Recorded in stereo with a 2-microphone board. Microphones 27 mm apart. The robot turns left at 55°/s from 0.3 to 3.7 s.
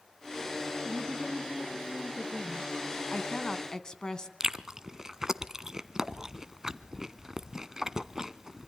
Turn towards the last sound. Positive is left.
turn(degrees=-20)  # may be behind; listen again after turning